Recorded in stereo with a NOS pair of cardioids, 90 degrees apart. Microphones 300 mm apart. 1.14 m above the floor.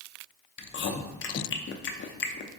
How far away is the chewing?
About 0.5 m.